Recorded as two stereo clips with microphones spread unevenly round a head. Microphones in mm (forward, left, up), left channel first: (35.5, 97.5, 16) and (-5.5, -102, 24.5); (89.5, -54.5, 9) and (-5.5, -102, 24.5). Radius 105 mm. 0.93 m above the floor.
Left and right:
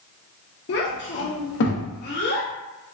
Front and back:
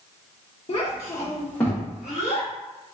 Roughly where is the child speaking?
Ahead left.